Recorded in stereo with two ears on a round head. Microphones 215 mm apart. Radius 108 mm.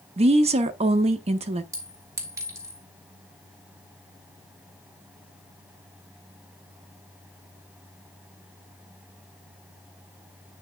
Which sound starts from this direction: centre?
A clink, at 1.7 s.